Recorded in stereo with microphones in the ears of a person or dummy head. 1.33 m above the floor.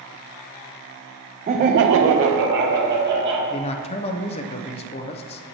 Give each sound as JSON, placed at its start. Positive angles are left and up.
{"t": 1.5, "sound": "laughter", "side_deg": -30, "distance_m": 0.8}
{"t": 3.5, "sound": "a man speaking", "side_deg": 30, "distance_m": 0.6}